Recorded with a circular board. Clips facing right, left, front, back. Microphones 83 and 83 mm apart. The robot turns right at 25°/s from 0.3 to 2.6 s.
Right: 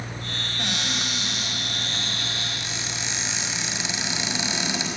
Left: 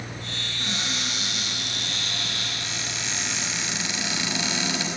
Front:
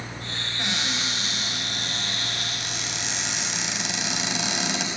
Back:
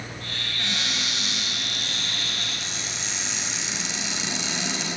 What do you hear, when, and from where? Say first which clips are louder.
0.6 s a cupboard door: right 2 dB, front 2 dB; 70° right, 5 m; by 4.9 s 20° right, 5 m